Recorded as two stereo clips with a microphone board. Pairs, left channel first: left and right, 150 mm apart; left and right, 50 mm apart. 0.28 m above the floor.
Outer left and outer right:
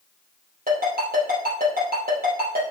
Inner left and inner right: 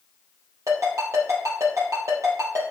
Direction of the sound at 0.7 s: 75° right (ahead or behind).